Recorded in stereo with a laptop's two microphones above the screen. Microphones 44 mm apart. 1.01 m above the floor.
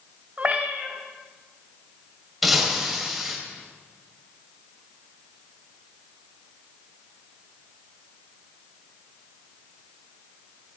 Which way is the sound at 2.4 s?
Centre (ahead or behind).